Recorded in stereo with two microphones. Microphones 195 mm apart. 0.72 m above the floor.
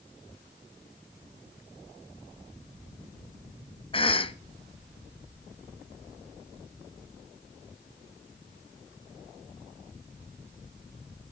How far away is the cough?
About 0.6 m.